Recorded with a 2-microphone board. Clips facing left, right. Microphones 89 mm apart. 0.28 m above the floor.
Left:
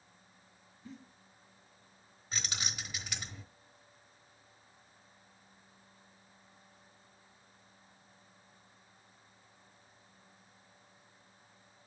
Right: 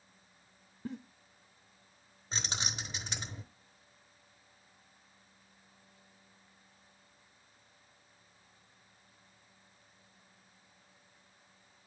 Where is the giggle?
65° right (ahead or behind), 0.7 m.